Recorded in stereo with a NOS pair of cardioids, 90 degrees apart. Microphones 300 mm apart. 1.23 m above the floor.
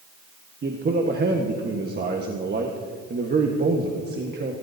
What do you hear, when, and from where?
0.6 s a man speaking: 35° right, 1.4 m